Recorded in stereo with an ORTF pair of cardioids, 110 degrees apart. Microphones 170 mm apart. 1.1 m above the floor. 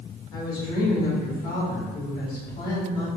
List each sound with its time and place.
0.3 s a woman speaking: 65° left, 1.8 m